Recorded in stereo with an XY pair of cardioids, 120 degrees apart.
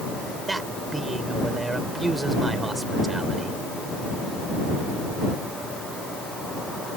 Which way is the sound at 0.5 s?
15° right.